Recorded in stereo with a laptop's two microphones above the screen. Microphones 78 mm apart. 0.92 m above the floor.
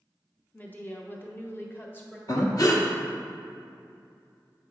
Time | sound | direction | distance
0.5 | a woman speaking | 20° left (ahead or behind) | 0.8 m
2.3 | breathing | 50° left (ahead or behind) | 0.9 m